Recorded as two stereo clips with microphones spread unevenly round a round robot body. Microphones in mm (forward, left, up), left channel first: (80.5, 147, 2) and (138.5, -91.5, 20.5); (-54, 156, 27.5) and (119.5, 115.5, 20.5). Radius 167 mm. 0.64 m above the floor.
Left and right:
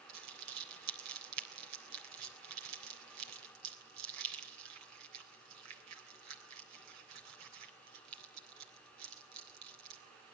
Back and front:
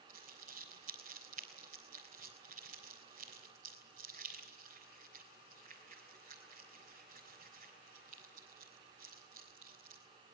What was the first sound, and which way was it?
Crumpling, 75° right.